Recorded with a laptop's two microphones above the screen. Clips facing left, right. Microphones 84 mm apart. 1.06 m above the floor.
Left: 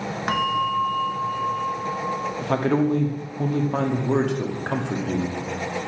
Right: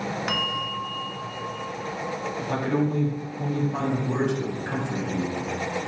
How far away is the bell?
About 0.7 m.